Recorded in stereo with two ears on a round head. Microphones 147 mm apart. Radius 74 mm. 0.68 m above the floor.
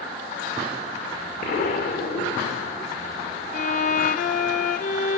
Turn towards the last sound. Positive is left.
turn(degrees=50)  # may be behind; listen again after turning